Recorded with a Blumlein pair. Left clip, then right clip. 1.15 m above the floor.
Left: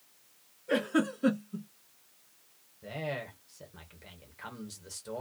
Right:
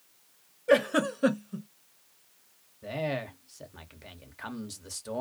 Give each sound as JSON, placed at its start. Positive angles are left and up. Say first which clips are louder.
{"t": 0.7, "sound": "a giggle", "louder": "right 6 dB", "azimuth_deg": -55, "distance_m": 0.9}
{"t": 2.8, "sound": "a man speaking", "louder": "right 4 dB", "azimuth_deg": -15, "distance_m": 0.8}